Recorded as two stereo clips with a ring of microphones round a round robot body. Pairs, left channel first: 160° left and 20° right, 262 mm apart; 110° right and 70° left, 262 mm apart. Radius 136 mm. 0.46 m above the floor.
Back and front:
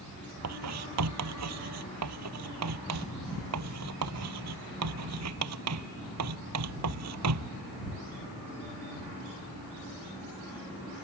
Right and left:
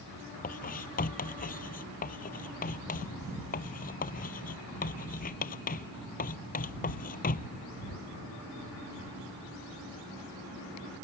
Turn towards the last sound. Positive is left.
turn(degrees=-50)